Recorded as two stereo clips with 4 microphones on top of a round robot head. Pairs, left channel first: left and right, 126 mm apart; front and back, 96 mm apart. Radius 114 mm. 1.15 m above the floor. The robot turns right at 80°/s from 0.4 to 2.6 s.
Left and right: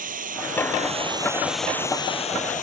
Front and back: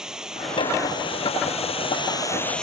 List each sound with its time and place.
0.0 s running water: 95° right; by 2.6 s 80° left